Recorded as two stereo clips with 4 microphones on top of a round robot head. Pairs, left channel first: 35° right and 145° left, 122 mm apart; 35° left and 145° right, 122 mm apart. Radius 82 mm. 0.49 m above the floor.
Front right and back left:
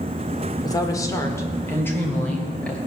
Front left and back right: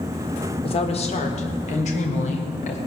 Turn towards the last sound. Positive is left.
turn(degrees=45)